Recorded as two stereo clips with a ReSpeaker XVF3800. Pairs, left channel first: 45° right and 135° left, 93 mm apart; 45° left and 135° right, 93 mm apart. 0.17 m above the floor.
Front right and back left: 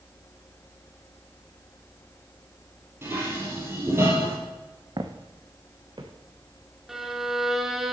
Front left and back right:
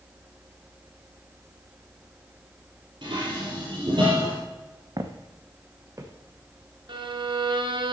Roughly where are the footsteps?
Behind.